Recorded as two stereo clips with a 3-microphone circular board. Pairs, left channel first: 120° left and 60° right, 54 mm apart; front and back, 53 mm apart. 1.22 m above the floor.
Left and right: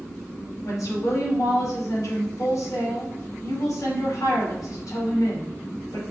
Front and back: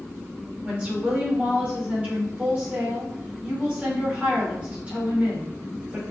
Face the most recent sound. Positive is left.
turn(degrees=110)